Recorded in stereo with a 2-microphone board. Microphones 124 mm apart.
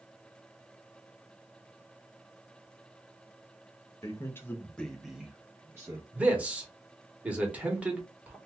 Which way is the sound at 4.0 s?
25° left (ahead or behind).